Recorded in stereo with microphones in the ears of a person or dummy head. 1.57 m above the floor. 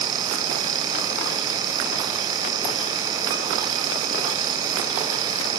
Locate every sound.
Only background noise.